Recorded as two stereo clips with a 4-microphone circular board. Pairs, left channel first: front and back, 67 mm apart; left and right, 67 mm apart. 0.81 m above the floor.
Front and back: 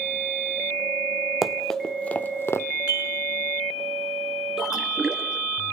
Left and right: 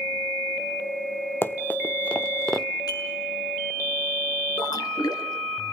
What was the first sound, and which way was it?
Running footsteps, 100° left.